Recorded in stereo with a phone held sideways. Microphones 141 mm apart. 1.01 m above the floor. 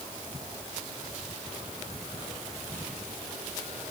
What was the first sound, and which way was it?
Only background noise.